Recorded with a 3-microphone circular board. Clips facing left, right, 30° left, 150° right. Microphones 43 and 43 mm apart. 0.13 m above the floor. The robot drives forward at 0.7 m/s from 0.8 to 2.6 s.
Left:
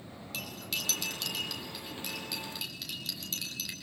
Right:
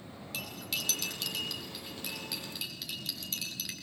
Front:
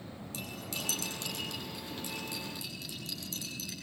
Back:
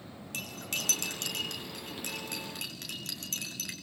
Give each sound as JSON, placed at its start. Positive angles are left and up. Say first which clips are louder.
{"t": 0.3, "sound": "cutlery clinking", "louder": "even, back 4 dB", "azimuth_deg": 180, "distance_m": 4.5}